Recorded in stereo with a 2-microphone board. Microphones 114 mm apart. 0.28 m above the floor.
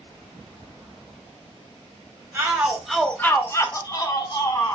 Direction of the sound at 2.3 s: 20° right (ahead or behind).